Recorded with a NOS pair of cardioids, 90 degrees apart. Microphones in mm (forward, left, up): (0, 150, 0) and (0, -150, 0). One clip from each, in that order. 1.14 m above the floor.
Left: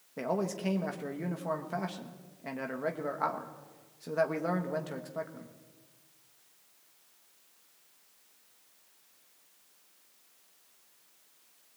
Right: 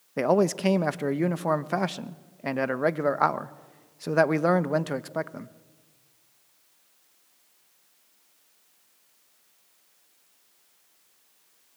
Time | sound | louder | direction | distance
0.2 | a man speaking | right 10 dB | 60° right | 1.0 m